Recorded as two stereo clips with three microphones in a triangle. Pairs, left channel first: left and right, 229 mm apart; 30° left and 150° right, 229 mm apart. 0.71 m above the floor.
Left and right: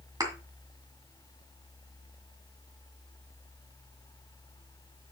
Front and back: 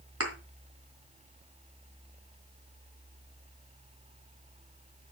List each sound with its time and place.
0.2 s a thud: 165° right, 2.0 m